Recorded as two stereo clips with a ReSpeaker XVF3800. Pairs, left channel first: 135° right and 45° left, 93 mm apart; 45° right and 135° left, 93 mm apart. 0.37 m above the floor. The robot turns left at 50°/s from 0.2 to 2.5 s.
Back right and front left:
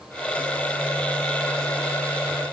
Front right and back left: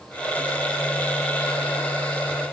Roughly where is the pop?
No pop in this recording.